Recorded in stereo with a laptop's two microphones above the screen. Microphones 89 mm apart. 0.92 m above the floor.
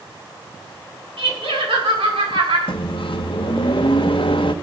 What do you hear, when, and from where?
1.2 s laughter: 75° right (ahead or behind), 8.5 m; by 2.6 s 85° right, 7.5 m
2.7 s a microwave: 70° left (ahead or behind), 1.1 m